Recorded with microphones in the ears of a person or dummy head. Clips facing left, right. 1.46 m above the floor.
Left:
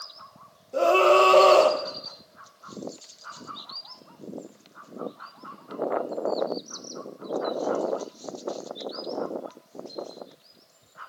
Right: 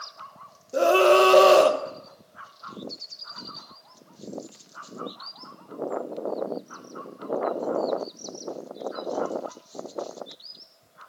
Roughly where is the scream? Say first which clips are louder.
Right 1 dB; centre.